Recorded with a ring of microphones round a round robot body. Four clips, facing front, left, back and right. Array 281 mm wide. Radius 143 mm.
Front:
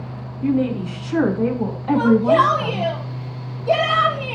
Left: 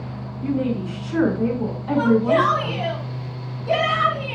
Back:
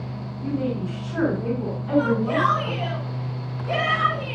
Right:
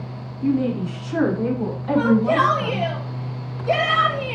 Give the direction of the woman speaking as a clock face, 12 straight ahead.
12 o'clock.